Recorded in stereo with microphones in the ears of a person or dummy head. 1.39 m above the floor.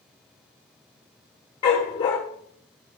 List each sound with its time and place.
1.6 s a dog barking: 25° left (ahead or behind), 1.5 m